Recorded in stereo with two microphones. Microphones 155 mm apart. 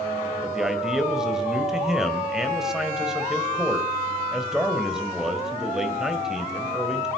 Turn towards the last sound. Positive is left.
turn(degrees=-5)  # may be behind; listen again after turning